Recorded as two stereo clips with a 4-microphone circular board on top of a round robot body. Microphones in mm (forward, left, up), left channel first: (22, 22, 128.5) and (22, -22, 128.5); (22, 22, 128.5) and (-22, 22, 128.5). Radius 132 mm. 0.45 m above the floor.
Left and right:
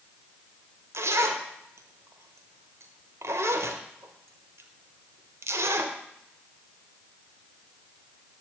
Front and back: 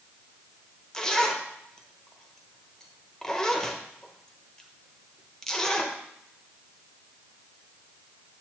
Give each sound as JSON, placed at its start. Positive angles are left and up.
{"t": 0.9, "sound": "a zipper", "azimuth_deg": -75, "distance_m": 0.9}